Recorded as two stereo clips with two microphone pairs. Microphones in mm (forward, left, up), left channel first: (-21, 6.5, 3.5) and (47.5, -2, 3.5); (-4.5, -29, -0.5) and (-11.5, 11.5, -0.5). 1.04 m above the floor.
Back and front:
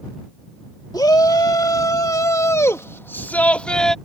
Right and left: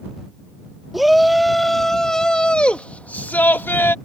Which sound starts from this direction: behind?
A shout, at 0.9 s.